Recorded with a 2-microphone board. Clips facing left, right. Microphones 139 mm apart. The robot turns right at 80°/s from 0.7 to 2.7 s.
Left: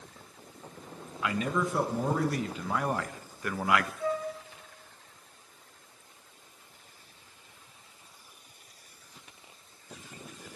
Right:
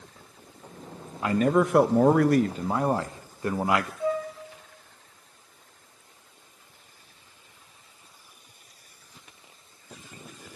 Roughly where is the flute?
Centre.